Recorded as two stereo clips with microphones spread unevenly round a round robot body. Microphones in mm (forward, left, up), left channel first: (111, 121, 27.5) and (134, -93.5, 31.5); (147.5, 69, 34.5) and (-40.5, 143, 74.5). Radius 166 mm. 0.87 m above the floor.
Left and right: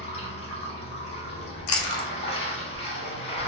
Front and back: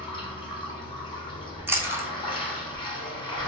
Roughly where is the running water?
Ahead left.